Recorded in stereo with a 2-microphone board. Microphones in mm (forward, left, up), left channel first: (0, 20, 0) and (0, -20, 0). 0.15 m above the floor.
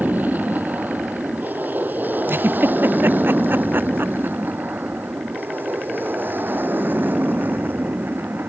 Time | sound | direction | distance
0.0 | an aircraft | 45° right (ahead or behind) | ?
2.3 | a giggle | 65° right (ahead or behind) | ?